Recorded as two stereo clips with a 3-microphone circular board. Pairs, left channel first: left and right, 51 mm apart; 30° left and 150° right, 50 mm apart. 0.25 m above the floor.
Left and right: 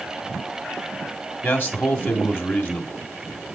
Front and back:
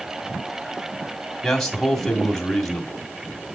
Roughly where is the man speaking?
Left.